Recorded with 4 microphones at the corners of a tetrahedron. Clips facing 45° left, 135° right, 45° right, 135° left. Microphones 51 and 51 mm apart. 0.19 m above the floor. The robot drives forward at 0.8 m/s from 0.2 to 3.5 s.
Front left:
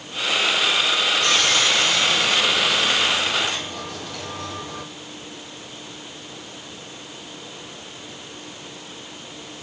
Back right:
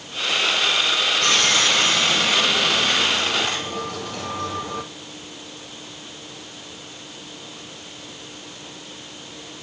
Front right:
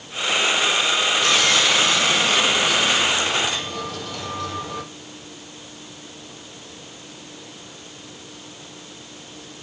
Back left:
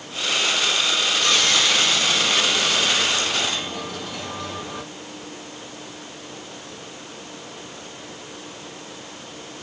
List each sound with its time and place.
1.2 s sawing: 130° right, 4.5 m; by 4.8 s 140° right, 6 m